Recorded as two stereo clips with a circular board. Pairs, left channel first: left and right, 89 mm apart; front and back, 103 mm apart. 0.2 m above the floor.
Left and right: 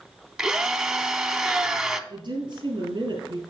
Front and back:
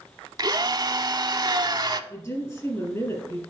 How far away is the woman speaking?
About 3.5 m.